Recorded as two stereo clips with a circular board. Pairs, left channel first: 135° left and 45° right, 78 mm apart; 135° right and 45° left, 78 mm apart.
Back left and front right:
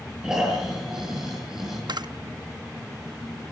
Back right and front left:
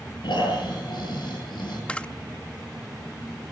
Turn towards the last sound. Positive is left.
turn(degrees=-60)